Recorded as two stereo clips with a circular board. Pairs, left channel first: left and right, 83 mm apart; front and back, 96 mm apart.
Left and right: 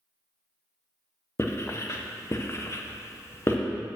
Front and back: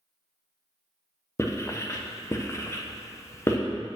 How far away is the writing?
About 0.6 m.